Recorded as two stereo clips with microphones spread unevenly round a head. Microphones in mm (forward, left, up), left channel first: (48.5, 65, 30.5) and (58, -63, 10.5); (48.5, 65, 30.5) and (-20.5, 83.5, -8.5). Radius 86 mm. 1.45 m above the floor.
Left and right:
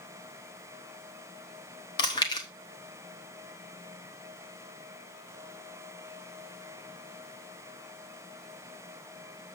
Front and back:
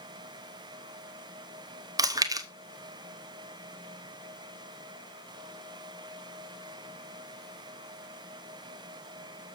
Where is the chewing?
160° left, 0.9 m.